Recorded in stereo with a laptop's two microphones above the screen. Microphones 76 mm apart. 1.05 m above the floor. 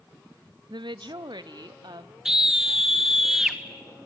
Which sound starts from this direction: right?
A woman speaking, at 0.7 s.